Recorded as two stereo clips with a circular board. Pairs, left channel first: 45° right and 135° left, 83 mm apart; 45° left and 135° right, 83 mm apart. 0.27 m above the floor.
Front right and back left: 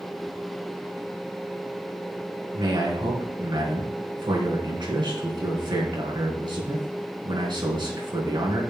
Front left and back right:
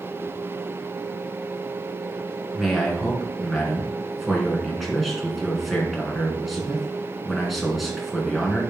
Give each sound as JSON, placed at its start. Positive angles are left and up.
{"t": 2.5, "sound": "a man speaking", "azimuth_deg": 135, "distance_m": 3.0}